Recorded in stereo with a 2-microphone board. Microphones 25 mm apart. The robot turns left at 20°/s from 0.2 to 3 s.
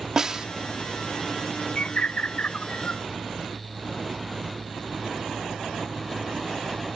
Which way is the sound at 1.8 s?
55° left (ahead or behind).